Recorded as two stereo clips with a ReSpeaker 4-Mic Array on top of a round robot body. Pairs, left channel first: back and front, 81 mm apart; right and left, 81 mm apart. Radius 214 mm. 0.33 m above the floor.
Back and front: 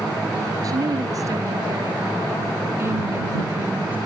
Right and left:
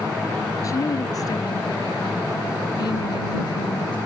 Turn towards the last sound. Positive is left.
turn(degrees=-70)